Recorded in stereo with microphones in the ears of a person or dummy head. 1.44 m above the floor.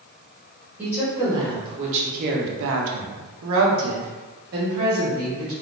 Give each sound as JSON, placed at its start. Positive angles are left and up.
{"t": 0.8, "sound": "a woman speaking", "side_deg": -10, "distance_m": 1.1}